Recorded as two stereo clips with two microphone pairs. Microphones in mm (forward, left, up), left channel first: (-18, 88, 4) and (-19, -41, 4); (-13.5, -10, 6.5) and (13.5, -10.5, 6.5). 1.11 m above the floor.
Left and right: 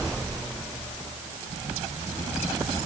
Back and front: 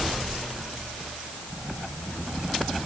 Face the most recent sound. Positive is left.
No sound to turn to.